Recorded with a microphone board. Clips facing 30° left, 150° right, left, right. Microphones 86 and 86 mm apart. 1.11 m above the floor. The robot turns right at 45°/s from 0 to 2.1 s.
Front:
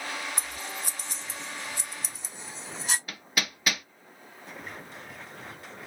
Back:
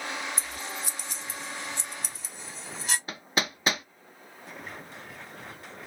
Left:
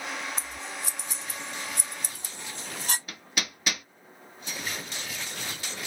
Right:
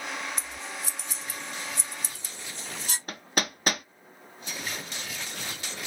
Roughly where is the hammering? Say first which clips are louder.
Back 3 dB, right 5 dB; right.